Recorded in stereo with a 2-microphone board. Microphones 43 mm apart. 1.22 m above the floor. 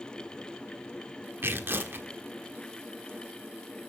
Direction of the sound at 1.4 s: 55° right (ahead or behind).